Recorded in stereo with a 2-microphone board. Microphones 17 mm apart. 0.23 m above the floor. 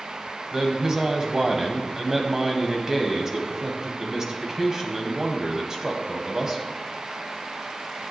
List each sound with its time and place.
0.5 s a man speaking: 30° right (ahead or behind), 1.4 m